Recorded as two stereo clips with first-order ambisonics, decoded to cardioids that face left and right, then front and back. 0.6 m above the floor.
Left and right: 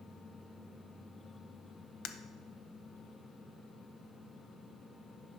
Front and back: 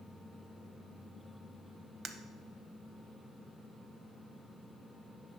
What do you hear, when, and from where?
2.0 s breaking glass: 115° left, 0.6 m